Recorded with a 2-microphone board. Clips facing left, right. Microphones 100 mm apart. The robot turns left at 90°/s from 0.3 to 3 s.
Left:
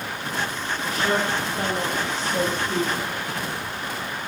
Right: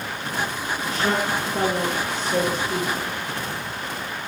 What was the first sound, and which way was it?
A woman speaking, 5° right.